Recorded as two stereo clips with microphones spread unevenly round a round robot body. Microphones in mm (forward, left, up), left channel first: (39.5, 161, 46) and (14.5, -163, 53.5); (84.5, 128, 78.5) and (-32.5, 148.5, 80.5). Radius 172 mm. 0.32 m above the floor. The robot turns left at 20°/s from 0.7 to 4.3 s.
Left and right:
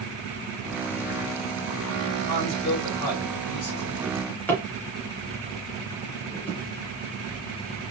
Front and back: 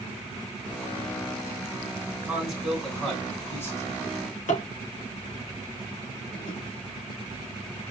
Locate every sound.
2.3 s a man speaking: 85° left, 3.5 m; by 3.9 s 50° left, 3.5 m
4.0 s a drawer: 5° left, 3 m; by 6.6 s straight ahead, 3 m